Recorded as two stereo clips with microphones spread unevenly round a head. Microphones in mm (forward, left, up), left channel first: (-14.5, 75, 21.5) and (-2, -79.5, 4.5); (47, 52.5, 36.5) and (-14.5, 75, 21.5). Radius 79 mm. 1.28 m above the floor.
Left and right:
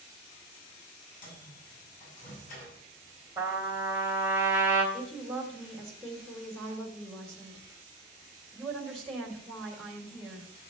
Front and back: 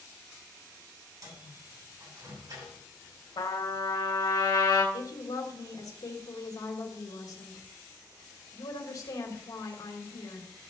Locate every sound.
1.2 s a microwave: 125° left, 7.5 m
3.4 s a trumpet: 5° right, 3 m
4.9 s a woman speaking: 5° left, 3.5 m